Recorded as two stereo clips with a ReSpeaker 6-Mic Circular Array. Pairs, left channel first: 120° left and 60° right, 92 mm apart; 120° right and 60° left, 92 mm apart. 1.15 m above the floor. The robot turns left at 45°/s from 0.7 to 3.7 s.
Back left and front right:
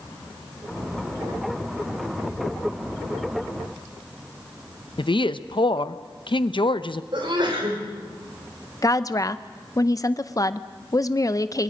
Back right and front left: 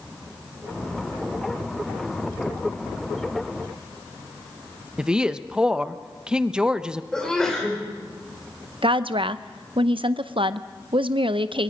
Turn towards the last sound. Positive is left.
turn(degrees=70)